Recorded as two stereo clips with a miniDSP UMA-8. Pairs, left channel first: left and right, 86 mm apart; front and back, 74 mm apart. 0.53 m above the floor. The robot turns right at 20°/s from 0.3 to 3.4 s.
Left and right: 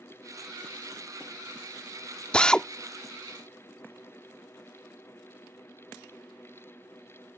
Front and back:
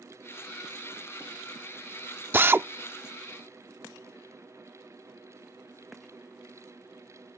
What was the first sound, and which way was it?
A drill, 155° left.